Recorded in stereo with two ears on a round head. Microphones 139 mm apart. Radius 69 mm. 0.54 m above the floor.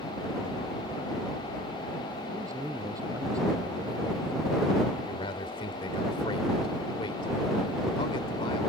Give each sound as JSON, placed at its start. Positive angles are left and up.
{"t": 2.3, "sound": "a man speaking", "side_deg": -20}
{"t": 5.0, "sound": "a man speaking", "side_deg": 35}